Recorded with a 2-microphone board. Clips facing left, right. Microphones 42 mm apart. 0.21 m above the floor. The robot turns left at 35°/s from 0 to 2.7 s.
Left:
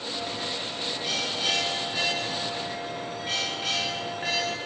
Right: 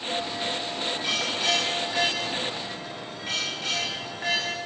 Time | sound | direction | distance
0.1 | a bell | 40° right | 9.5 m